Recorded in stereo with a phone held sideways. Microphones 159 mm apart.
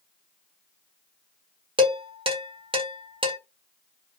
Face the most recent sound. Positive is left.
turn(degrees=-35)  # may be behind; listen again after turning